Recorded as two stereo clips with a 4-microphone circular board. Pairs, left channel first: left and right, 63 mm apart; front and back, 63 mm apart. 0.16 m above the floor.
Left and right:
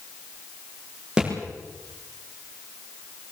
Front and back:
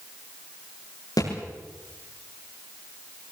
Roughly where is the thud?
Ahead.